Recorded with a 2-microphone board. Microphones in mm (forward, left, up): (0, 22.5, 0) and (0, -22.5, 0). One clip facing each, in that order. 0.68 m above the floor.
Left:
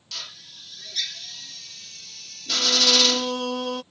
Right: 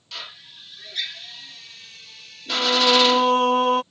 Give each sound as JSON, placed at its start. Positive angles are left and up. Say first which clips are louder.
{"t": 0.1, "sound": "a drill", "louder": "right 2 dB", "side_deg": -20}
{"t": 2.5, "sound": "singing", "louder": "right 4 dB", "side_deg": -40}